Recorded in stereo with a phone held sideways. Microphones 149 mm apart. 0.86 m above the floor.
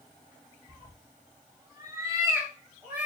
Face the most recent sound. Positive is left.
turn(degrees=-10)  # may be behind; listen again after turning